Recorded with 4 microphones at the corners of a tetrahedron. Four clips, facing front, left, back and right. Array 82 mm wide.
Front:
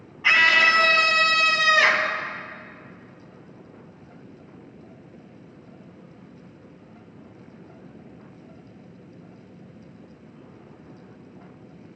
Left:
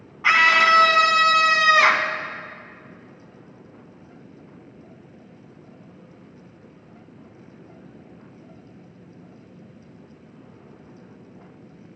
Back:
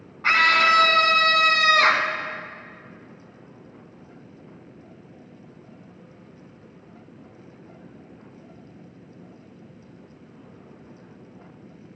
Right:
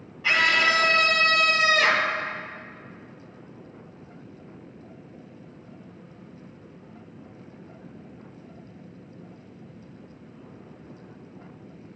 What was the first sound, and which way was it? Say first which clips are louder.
A scream: left 5 dB, even; 110° left.